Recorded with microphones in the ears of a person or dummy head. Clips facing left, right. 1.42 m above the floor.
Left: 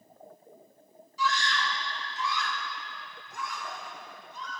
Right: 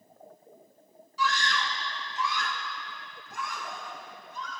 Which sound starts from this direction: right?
A scream, at 1.2 s.